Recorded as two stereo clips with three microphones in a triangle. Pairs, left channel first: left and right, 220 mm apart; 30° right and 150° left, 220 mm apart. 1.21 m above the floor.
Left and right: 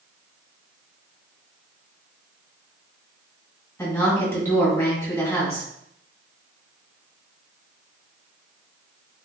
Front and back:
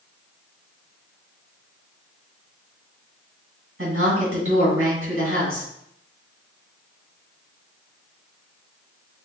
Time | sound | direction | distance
3.8 | a woman speaking | 170° left | 2.5 m